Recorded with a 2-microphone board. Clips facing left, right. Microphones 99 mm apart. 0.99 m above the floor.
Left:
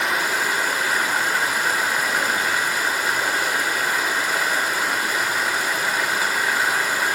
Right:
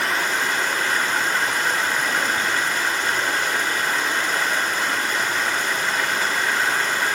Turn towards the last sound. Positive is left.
turn(degrees=10)  # may be behind; listen again after turning